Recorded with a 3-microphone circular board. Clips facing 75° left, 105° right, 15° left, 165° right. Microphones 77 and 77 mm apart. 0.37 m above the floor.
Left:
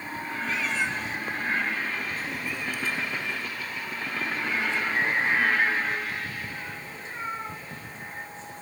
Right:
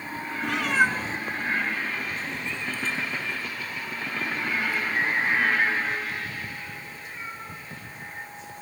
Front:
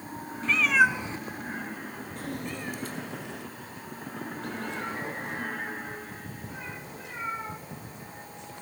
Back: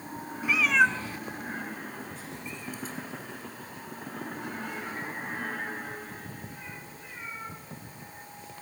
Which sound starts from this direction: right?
A cat meowing, at 0.4 s.